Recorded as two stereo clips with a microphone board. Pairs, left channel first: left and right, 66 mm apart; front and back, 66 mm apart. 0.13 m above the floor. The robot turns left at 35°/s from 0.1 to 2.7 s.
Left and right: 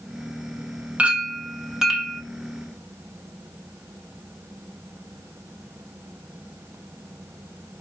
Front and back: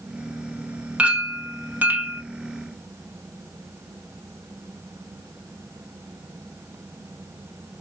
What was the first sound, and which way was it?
A clink, 130° right.